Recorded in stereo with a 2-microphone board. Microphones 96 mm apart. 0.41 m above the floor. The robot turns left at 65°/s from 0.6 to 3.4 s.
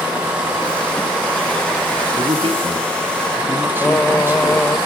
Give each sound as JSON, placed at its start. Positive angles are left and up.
{"t": 2.2, "sound": "a man speaking", "azimuth_deg": -80, "distance_m": 4.0}
{"t": 3.8, "sound": "singing", "side_deg": 20, "distance_m": 0.9}